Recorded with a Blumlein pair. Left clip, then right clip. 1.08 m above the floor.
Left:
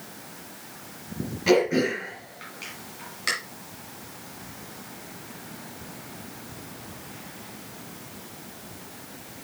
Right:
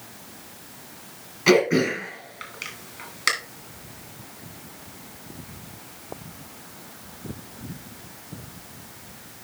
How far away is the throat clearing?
About 3 m.